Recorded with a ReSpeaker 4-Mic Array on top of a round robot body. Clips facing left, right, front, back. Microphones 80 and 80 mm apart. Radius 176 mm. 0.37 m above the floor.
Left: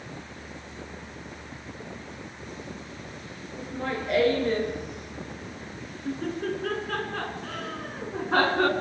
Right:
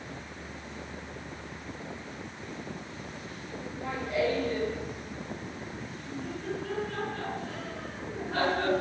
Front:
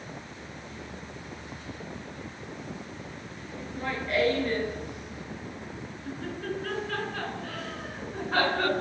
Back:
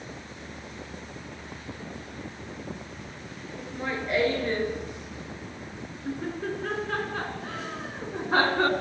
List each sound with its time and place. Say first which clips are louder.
3.6 s laughter: left 5 dB, back 1 dB; 110° left, 8 m; by 8.7 s 120° left, 5.5 m